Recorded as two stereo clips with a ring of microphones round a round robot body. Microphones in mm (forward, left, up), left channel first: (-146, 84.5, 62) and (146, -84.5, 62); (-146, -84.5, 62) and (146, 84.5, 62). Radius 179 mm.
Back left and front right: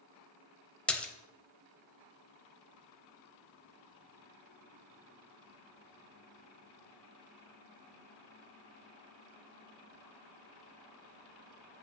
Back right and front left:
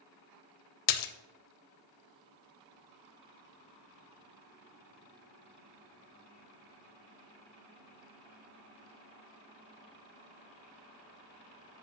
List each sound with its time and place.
0.9 s a splash: 125° right, 0.6 m